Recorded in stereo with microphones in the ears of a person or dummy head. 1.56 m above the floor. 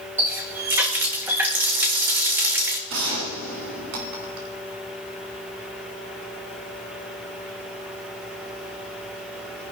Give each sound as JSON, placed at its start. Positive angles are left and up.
{"t": 0.2, "sound": "a running tap", "side_deg": -10, "distance_m": 0.9}
{"t": 2.9, "sound": "a gunshot", "side_deg": -50, "distance_m": 2.0}